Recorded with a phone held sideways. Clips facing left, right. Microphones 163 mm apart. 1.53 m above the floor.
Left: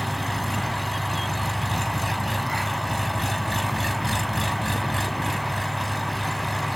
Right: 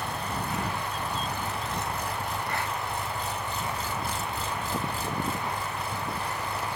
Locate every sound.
0.0 s an engine running: 75° left (ahead or behind)